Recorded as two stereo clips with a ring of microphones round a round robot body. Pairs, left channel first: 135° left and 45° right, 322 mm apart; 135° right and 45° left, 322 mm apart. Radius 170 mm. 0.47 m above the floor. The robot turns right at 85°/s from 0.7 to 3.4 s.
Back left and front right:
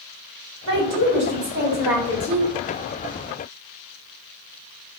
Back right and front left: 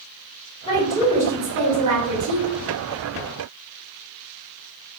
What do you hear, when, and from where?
0.7 s a woman speaking: 65° right, 1.8 m; by 2.4 s 80° left, 1.8 m